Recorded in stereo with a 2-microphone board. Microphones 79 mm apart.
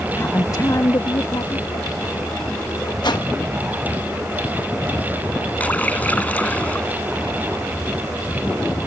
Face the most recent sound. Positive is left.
turn(degrees=20)  # may be behind; listen again after turning